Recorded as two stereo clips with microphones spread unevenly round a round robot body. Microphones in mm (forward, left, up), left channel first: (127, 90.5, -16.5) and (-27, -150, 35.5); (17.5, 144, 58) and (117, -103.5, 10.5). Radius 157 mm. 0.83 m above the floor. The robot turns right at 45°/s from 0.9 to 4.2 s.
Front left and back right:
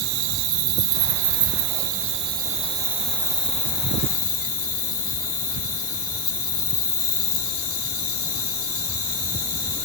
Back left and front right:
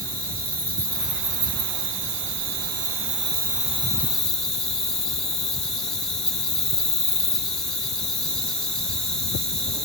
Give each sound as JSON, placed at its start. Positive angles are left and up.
{"t": 0.0, "sound": "an insect", "azimuth_deg": -125, "distance_m": 2.5}